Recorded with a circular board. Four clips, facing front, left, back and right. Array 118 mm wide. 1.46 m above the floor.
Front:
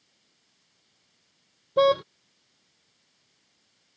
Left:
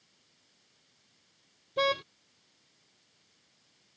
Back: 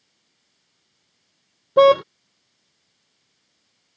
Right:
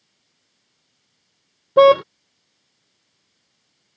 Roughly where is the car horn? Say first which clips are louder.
Right 19 dB, back 8 dB; behind right.